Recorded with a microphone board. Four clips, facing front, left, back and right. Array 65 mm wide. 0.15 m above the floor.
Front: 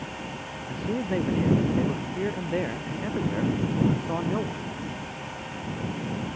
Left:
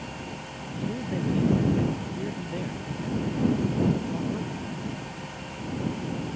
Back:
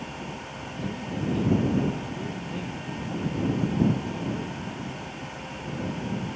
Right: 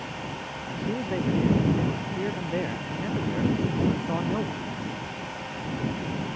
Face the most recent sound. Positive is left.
turn(degrees=-40)